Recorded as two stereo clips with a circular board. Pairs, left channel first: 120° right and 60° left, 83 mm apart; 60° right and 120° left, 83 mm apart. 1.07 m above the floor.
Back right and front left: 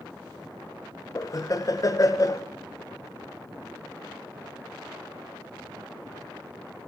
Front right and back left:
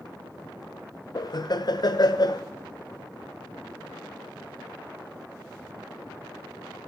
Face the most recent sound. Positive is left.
turn(degrees=-80)